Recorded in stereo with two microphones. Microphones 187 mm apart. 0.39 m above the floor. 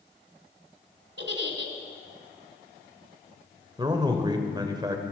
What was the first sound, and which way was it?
A giggle, 70° right (ahead or behind).